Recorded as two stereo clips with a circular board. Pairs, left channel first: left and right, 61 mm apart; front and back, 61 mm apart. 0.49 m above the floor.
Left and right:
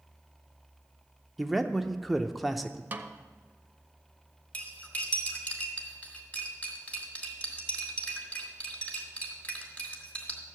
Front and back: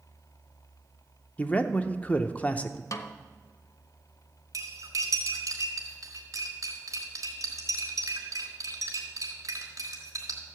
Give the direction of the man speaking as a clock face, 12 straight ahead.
12 o'clock.